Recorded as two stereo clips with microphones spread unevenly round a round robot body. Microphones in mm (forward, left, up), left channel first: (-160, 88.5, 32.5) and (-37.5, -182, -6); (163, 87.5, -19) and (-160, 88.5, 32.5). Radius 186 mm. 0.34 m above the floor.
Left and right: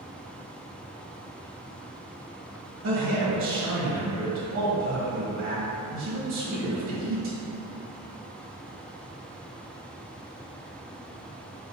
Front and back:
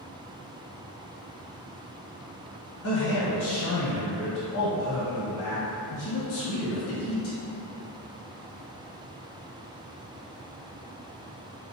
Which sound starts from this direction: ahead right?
A man speaking, at 2.8 s.